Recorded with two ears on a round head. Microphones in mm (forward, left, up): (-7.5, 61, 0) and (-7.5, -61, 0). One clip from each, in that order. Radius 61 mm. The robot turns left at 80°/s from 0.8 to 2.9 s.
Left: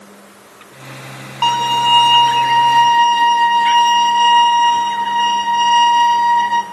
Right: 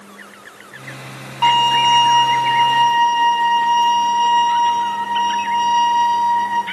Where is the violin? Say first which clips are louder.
Right 1 dB; 160° left, 5 m; by 6.6 s 45° left, 5 m.